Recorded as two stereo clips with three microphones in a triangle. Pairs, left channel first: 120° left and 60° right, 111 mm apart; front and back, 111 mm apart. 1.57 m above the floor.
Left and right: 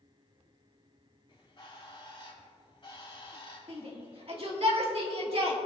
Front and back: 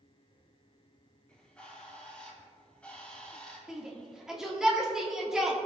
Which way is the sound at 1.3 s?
80° left.